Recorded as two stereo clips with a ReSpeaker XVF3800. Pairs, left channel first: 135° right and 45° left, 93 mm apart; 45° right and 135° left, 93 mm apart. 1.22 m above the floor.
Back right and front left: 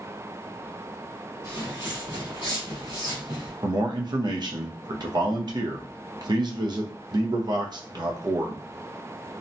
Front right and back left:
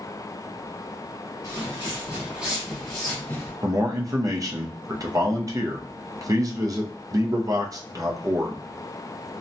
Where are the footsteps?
90° left, 1.8 m; by 3.5 s 25° left, 1.8 m.